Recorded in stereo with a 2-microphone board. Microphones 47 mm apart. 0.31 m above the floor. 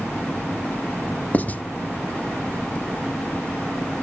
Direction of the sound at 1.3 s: 35° left (ahead or behind).